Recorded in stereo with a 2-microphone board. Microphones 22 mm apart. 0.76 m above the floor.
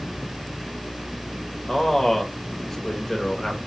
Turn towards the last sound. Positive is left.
turn(degrees=20)  # may be behind; listen again after turning